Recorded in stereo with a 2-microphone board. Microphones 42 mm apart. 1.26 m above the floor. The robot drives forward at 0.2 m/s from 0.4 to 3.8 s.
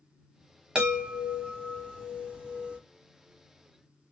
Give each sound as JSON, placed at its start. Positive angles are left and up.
{"t": 0.8, "sound": "a chime", "side_deg": -20, "distance_m": 1.2}